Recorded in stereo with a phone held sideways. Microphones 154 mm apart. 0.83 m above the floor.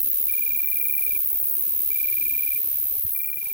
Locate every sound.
0.0 s an insect: 55° right (ahead or behind)